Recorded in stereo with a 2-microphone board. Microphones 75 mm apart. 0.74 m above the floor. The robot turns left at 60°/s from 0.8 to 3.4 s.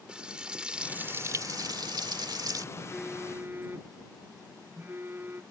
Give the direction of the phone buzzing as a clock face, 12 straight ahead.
12 o'clock.